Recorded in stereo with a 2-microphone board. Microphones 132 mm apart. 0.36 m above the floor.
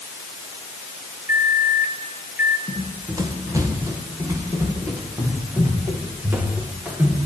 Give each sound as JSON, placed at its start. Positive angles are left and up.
{"t": 1.3, "sound": "a microwave", "side_deg": -15, "distance_m": 4.5}
{"t": 2.7, "sound": "running footsteps", "side_deg": -30, "distance_m": 6.5}